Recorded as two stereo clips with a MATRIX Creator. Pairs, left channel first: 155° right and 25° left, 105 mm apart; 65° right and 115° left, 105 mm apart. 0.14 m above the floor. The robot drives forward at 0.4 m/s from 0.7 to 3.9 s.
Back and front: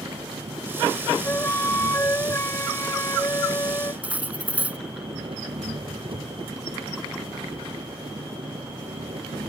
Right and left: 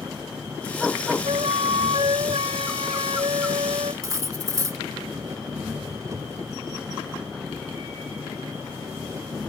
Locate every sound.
0.0 s an engine running: 50° left
1.2 s a flute: 135° left; by 3.9 s 140° left
4.0 s cutlery clinking: 85° left